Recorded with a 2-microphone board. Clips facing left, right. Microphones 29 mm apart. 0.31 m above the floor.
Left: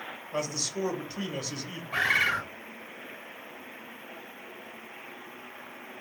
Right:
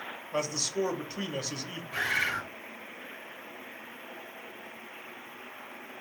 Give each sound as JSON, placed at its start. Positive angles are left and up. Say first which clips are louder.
{"t": 0.3, "sound": "a man speaking", "louder": "right 1 dB", "side_deg": -10, "distance_m": 0.9}
{"t": 1.9, "sound": "a bird", "louder": "left 4 dB", "side_deg": 45, "distance_m": 1.2}